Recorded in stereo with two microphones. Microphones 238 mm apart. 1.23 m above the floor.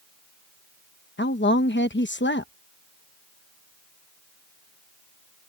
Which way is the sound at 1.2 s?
55° left (ahead or behind).